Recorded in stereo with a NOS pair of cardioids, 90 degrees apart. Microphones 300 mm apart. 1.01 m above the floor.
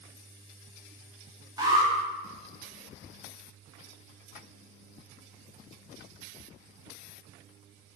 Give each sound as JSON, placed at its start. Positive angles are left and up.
{"t": 1.6, "sound": "an alarm", "azimuth_deg": -15, "distance_m": 0.9}